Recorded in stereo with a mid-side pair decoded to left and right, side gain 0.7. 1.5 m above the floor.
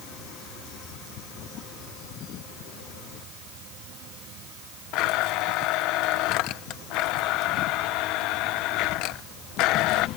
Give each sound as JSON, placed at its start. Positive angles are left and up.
{"t": 4.9, "sound": "a blender", "azimuth_deg": 65}